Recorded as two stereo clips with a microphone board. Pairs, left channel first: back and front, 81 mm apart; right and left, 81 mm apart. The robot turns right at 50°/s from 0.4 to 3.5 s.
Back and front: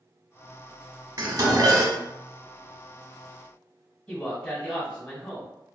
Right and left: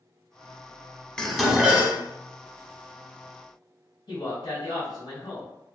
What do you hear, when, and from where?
1.2 s dishes clattering: 15° right, 0.8 m; by 2.0 s 30° left, 0.8 m
4.1 s a man speaking: 105° right, 2.0 m